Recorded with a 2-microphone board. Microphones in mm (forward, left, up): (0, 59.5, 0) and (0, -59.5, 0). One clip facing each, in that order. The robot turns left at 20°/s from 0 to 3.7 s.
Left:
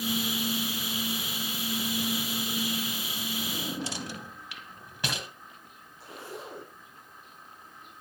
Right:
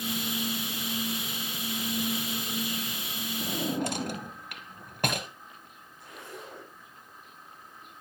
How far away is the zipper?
About 5 m.